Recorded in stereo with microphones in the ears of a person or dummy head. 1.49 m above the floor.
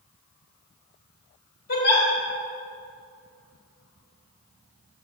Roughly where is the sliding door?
I don't hear a sliding door.